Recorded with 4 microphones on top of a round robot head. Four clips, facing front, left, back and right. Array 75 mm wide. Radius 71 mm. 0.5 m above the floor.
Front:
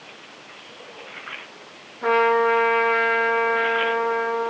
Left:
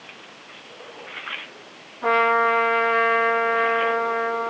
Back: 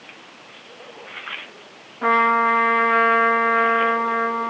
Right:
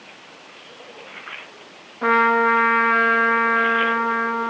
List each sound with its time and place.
2.0 s a trumpet: 130° right, 8 m